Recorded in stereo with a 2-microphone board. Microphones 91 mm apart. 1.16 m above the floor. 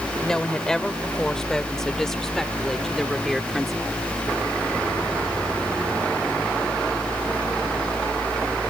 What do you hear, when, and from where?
0.2 s a woman speaking: 5° left (ahead or behind); by 4.0 s centre (ahead or behind)